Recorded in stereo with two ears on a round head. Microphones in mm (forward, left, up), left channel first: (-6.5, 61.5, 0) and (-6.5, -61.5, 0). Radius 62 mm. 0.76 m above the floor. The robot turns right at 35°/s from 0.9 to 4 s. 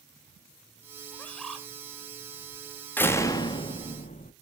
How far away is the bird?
About 1.3 m.